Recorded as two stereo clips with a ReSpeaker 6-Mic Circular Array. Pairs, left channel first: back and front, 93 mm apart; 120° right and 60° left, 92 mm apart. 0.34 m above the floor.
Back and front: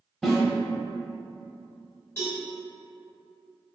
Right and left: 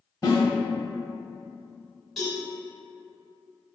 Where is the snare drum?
90° right, 0.8 m.